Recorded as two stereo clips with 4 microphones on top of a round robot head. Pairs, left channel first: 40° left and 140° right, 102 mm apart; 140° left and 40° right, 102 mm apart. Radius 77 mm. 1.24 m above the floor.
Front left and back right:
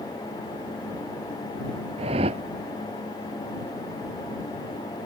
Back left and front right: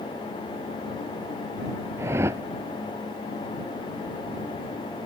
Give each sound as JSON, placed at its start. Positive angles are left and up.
{"t": 2.0, "sound": "a whoosh", "azimuth_deg": -110}